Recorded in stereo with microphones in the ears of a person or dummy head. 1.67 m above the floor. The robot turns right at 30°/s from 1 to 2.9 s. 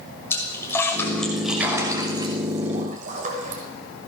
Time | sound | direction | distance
0.3 | a splash | 10° left (ahead or behind) | 6 m